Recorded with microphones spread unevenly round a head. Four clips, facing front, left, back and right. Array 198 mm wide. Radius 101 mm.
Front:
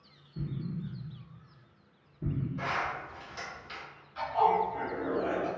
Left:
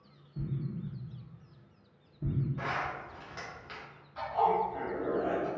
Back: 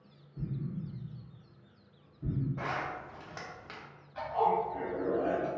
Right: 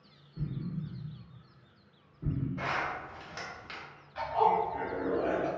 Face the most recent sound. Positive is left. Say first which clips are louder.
# right 1 dB, front 3 dB
turn(degrees=-155)